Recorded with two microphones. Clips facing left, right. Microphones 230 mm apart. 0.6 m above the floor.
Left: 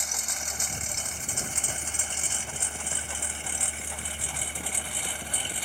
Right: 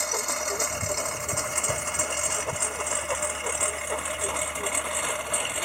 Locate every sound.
0.0 s a lawn mower: 70° right (ahead or behind)